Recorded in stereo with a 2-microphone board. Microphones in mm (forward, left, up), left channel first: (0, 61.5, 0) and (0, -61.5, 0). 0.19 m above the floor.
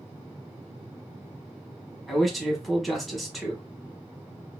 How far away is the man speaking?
About 1.1 m.